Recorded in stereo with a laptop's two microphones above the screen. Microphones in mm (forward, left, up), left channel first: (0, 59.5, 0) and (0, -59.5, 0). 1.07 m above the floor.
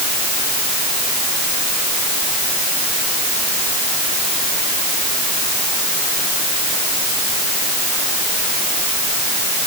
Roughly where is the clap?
No clap in this recording.